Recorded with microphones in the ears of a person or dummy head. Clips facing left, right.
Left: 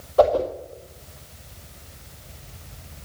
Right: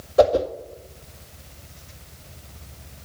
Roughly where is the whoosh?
Right.